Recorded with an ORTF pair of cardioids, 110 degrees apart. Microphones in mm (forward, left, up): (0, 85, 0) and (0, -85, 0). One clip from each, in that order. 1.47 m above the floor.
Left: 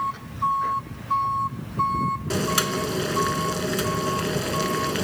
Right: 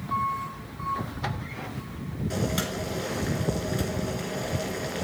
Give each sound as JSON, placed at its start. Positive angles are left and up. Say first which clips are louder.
{"t": 2.3, "sound": "boiling", "louder": "left 3 dB", "azimuth_deg": 60, "distance_m": 1.6}